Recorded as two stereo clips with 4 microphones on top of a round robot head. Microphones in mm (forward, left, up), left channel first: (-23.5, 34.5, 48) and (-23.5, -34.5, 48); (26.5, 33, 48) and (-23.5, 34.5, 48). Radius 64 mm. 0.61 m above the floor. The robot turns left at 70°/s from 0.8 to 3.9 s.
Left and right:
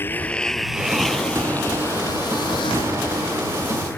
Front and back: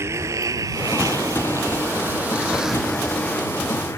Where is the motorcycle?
150° left; by 4.0 s 20° left.